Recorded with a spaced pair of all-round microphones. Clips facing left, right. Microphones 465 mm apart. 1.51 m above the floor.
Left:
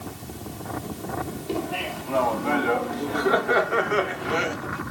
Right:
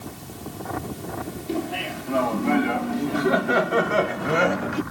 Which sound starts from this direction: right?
Laughter, at 1.5 s.